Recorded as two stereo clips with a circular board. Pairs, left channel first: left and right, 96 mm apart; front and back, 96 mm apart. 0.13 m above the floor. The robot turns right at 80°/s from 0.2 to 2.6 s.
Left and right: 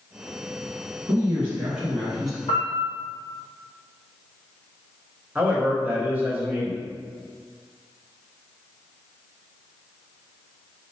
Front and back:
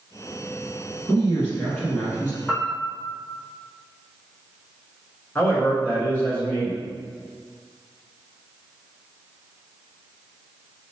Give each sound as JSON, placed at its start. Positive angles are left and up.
{"t": 1.1, "sound": "a man speaking", "azimuth_deg": -90, "distance_m": 1.1}
{"t": 2.5, "sound": "a piano", "azimuth_deg": 85, "distance_m": 1.0}
{"t": 5.3, "sound": "a man speaking", "azimuth_deg": -40, "distance_m": 1.4}